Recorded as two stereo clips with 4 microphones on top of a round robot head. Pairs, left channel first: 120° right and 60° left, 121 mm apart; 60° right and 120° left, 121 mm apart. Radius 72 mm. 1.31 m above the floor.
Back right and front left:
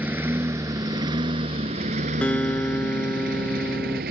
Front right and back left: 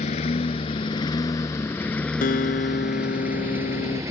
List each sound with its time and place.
0.0 s a lawn mower: 20° right; by 4.1 s 55° left
2.2 s a guitar: 40° right